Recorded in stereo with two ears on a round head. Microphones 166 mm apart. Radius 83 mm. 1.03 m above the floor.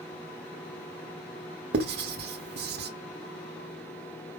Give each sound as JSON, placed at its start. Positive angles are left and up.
{"t": 1.7, "sound": "writing", "side_deg": -60, "distance_m": 1.2}